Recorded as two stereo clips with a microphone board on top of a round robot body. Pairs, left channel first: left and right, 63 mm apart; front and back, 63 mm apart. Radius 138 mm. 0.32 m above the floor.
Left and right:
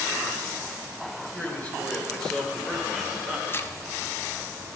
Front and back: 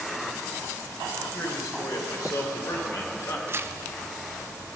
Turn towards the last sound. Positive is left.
turn(degrees=135)